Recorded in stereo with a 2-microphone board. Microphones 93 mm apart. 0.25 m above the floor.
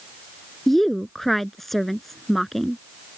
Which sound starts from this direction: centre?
A woman speaking, at 0.7 s.